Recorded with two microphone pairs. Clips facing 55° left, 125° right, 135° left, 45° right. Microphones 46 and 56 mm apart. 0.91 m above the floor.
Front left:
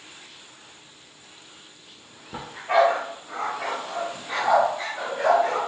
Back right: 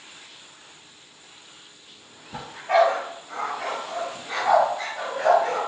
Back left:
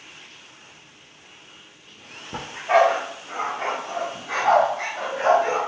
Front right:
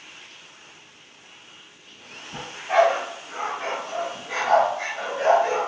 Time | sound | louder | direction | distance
2.3 | a dog barking | back right 1 dB, back left 2 dB | 130° left | 0.9 m